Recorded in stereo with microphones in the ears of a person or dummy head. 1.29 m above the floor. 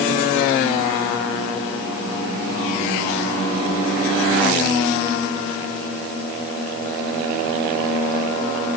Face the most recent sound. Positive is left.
No sound to turn to.